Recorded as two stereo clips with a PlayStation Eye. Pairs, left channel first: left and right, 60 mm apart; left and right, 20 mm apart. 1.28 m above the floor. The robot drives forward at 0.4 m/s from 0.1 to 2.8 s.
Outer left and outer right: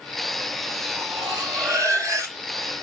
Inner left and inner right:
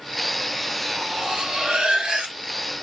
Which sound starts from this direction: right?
Cutlery clinking, at 0.9 s.